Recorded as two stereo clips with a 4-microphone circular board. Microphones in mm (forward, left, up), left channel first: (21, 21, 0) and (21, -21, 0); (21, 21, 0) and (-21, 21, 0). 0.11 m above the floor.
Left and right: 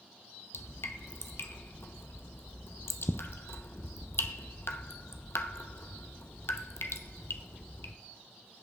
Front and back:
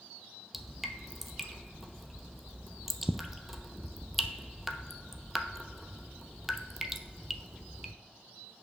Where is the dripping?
95° left, 0.6 m.